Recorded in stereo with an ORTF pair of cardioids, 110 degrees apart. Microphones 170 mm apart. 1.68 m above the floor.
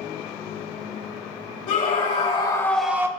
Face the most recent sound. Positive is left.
turn(degrees=-20)